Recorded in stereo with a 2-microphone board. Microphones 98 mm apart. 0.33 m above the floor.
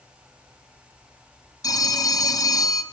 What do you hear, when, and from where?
1.6 s a phone ringing: 40° left (ahead or behind), 1.3 m